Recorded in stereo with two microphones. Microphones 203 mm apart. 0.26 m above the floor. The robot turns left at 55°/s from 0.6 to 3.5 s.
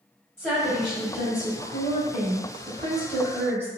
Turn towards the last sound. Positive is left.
turn(degrees=-10)  # may be behind; listen again after turning